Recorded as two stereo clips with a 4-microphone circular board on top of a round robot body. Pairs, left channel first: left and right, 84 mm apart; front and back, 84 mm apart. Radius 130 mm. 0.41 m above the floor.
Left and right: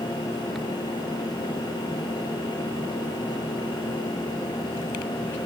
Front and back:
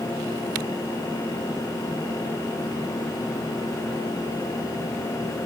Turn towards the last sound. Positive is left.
No sound to turn to.